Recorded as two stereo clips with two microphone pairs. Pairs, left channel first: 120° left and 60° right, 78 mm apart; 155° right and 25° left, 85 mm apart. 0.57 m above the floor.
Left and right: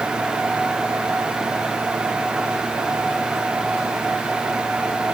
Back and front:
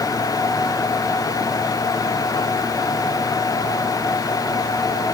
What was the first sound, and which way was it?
Only background noise.